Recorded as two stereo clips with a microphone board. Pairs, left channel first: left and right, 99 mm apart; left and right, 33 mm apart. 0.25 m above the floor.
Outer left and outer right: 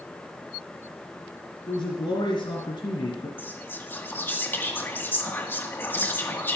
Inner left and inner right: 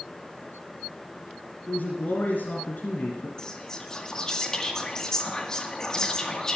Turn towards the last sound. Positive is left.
turn(degrees=20)  # may be behind; listen again after turning